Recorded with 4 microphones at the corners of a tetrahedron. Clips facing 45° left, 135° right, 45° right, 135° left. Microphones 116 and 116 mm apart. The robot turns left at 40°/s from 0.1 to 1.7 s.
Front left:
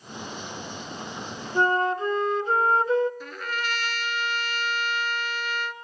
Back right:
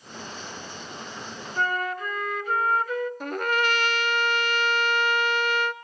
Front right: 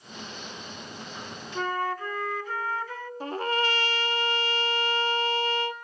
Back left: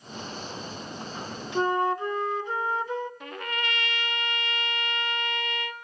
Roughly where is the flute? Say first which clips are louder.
Front left 5 dB, back left 5 dB; left.